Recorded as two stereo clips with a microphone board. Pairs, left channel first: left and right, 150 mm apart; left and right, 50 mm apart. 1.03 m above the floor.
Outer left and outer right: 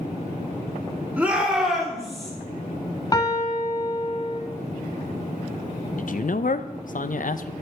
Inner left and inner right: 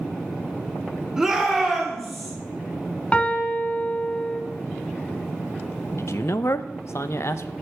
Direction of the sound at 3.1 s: 25° left (ahead or behind).